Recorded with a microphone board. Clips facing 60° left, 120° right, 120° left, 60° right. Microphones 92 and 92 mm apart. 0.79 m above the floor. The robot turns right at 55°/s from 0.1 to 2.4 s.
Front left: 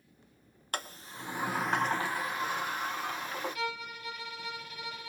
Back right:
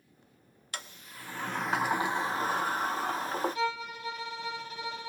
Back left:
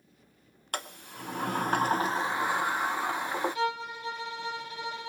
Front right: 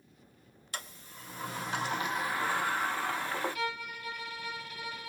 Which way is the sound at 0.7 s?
100° left.